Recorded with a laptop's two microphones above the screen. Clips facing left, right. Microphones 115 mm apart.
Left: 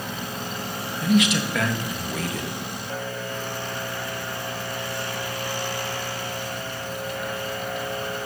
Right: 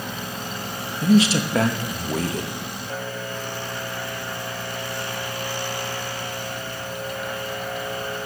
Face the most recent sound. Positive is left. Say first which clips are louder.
# right 3 dB
turn(degrees=-30)  # may be behind; listen again after turning